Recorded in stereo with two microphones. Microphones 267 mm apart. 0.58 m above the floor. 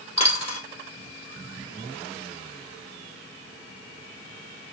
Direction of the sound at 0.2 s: 20° left (ahead or behind).